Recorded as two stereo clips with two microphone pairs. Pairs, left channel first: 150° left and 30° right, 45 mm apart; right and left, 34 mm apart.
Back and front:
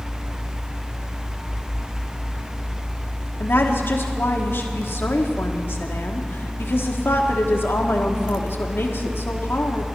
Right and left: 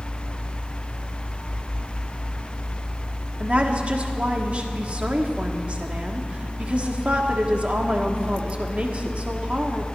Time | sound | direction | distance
3.4 | a woman speaking | 135° left | 1.2 m